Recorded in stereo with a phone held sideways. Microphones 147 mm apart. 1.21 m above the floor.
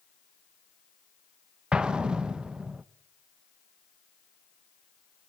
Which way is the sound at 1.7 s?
5° right (ahead or behind).